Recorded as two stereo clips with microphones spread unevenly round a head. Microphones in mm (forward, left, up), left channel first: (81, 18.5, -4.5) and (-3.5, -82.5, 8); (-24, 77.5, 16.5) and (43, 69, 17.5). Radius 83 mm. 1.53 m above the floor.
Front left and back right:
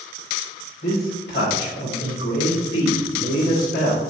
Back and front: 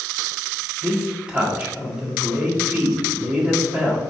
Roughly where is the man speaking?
Ahead left.